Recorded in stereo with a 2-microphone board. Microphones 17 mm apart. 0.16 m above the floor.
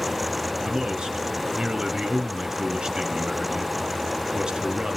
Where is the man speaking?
45° right (ahead or behind), 1.8 m.